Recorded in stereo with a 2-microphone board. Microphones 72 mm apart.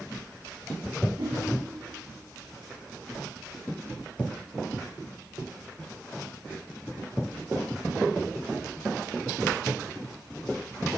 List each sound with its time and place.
1.2 s a whoosh: 75° right (ahead or behind), 9 m